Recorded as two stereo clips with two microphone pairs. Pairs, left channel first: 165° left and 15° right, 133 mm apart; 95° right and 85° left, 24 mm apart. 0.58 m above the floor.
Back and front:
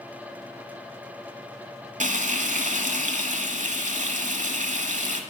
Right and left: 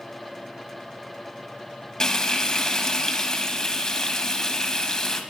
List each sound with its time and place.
2.0 s frying: 35° right, 1.1 m